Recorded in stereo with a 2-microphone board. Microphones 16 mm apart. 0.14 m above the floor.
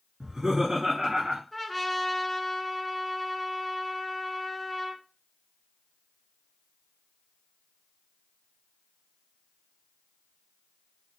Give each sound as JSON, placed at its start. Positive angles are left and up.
{"t": 0.2, "sound": "laughter", "side_deg": -35, "distance_m": 1.5}
{"t": 1.5, "sound": "a trumpet", "side_deg": 10, "distance_m": 0.7}